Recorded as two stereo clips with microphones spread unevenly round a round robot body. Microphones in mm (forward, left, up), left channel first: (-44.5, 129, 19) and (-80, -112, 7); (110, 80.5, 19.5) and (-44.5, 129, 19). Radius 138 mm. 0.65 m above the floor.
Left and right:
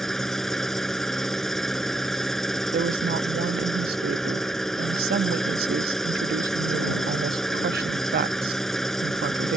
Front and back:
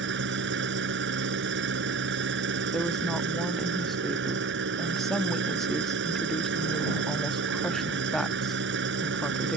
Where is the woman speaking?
105° right.